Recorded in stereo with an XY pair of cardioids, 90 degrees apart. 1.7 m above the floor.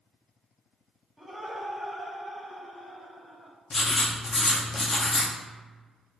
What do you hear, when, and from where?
1.2 s laughter: straight ahead, 1.0 m; by 3.5 s 55° left, 1.6 m
3.7 s writing: 40° left, 0.8 m